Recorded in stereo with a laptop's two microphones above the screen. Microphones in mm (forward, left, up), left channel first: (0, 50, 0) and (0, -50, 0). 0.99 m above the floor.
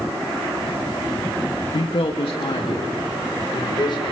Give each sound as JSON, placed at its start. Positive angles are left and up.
{"t": 1.7, "sound": "a man speaking", "side_deg": 60, "distance_m": 1.5}